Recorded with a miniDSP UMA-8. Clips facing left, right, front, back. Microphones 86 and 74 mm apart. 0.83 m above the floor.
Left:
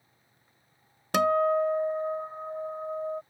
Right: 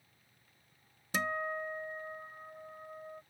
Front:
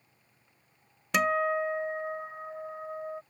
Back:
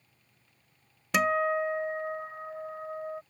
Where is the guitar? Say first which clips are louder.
Left 13 dB, back 1 dB; 90° left.